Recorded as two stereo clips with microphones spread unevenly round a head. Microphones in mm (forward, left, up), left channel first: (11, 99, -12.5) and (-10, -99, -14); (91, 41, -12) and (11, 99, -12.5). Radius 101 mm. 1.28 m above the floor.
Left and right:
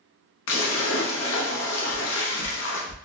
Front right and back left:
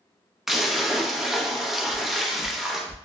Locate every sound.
0.5 s a splash: 55° left, 0.9 m
1.9 s footsteps: 50° left, 2.0 m; by 3.0 s 25° left, 2.5 m